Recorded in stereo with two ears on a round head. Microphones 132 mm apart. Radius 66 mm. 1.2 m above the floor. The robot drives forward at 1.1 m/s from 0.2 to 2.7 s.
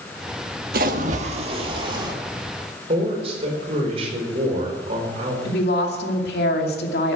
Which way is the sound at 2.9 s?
40° right (ahead or behind).